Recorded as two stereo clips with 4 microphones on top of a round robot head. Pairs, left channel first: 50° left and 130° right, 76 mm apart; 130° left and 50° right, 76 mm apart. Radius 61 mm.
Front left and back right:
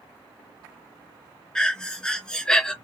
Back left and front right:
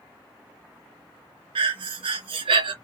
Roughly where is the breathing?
Ahead right.